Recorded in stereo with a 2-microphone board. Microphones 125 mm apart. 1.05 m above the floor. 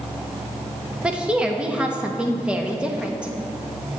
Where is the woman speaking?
10° right (ahead or behind), 1.3 m.